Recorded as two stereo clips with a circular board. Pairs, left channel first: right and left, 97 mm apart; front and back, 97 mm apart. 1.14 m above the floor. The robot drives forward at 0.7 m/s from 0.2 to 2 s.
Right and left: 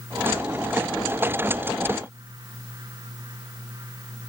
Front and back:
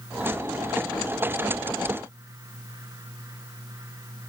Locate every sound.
Only background noise.